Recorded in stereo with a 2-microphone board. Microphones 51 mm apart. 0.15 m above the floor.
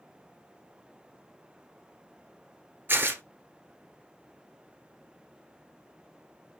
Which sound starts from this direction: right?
Tearing paper, at 2.9 s.